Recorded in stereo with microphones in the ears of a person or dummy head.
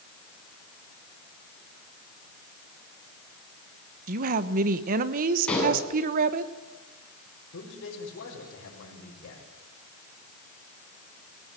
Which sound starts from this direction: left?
A man speaking, at 7.5 s.